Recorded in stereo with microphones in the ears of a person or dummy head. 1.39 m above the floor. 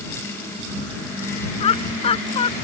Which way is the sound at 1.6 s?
35° left (ahead or behind).